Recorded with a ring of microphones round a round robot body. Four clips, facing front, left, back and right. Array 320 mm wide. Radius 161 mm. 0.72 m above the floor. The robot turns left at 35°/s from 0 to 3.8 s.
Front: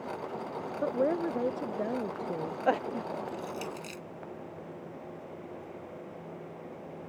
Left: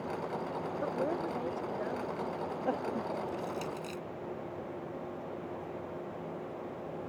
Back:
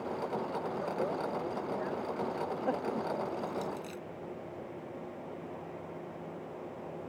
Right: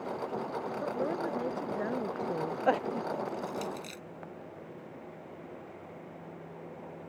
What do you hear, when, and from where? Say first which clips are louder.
0.8 s a woman speaking: even, front 9 dB; 5° left; by 2.6 s 55° right
3.3 s crushing: right 1 dB, back 2 dB; 20° right; by 4.0 s 40° right